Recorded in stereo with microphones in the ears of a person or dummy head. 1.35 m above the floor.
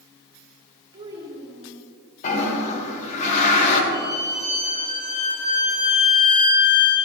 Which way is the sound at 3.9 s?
20° left (ahead or behind).